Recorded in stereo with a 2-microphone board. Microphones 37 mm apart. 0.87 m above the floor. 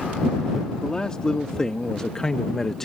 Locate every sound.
0.8 s a man speaking: 20° left (ahead or behind); by 2.9 s 10° left (ahead or behind)